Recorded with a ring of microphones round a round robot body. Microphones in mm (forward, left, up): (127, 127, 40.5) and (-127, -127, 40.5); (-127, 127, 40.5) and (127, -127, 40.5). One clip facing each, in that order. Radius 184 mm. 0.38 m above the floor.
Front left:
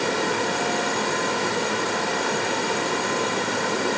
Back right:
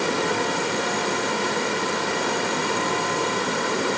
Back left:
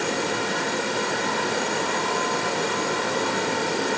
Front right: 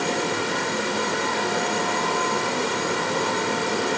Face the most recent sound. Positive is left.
No sound to turn to.